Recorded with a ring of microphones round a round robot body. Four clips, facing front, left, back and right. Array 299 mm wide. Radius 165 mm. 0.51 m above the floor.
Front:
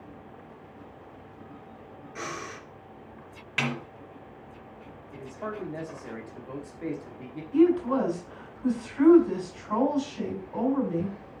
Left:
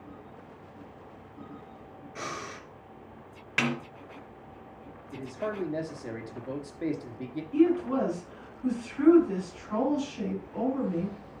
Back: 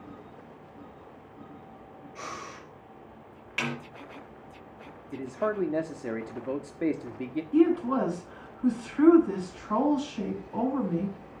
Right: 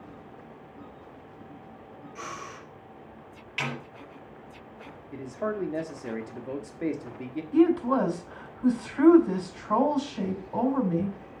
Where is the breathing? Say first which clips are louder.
Left 2 dB, front 3 dB; 25° left, 3 m.